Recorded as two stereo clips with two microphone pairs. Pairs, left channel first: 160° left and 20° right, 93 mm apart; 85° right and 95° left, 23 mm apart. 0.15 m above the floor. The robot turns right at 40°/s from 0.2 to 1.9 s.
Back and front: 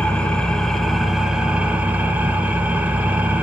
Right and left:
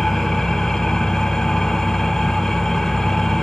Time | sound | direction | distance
0.0 | an engine running | 135° right | 1.3 m